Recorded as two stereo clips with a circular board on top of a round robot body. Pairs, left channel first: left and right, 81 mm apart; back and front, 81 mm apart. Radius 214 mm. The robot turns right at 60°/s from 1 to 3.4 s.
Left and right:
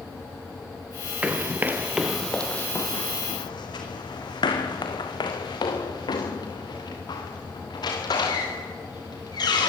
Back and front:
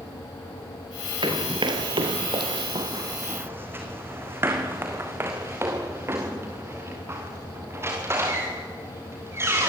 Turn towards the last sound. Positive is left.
turn(degrees=60)